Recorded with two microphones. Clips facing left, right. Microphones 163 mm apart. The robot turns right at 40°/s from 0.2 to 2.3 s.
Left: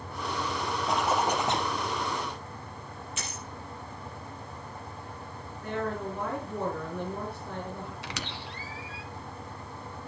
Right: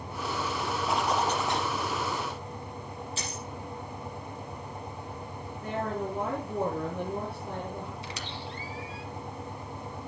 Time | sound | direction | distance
0.9 | a zipper | straight ahead | 2.5 m
3.2 | a dropped coin | 30° right (ahead or behind) | 5.5 m
5.6 | a woman speaking | 30° right (ahead or behind) | 5.5 m
8.0 | a squeak | 75° left (ahead or behind) | 1.5 m